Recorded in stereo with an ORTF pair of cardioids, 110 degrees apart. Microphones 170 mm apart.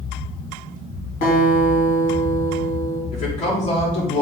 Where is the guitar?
60° left, 3 m.